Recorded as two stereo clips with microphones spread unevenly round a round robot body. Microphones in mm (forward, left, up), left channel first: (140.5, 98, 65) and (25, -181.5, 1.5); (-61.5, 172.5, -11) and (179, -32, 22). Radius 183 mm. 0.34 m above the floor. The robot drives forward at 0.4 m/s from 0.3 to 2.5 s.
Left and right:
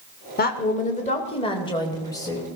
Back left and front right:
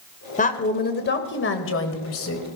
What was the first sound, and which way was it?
A woman speaking, 120° left.